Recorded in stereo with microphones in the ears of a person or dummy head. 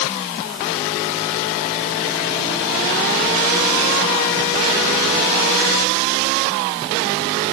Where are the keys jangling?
No keys jangling in this recording.